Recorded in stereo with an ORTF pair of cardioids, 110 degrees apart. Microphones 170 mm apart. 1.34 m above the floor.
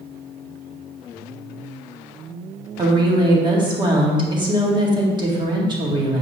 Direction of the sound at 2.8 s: 25° right.